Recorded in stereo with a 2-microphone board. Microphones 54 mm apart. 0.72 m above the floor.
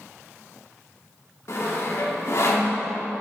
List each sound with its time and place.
1.5 s sawing: 60° left (ahead or behind), 2 m